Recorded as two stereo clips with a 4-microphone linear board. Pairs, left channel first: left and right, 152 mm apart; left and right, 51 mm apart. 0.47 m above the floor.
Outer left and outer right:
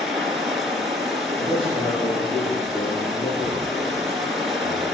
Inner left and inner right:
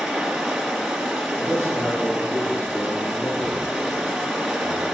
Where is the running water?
Centre (ahead or behind), 2.5 m.